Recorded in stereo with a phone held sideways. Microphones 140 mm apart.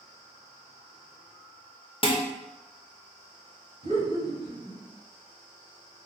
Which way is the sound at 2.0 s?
40° left (ahead or behind).